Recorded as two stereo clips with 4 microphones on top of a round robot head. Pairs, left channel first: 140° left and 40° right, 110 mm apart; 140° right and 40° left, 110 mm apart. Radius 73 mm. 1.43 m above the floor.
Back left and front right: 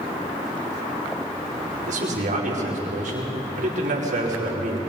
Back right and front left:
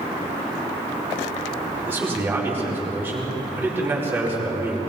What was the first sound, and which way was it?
A man speaking, 30° right.